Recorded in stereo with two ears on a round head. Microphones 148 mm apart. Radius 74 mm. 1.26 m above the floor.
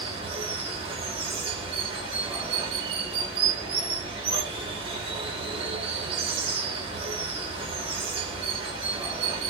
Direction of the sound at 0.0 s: 30° right (ahead or behind).